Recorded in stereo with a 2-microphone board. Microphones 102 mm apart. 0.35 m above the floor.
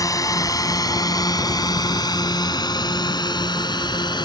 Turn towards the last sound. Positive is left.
turn(degrees=45)  # may be behind; listen again after turning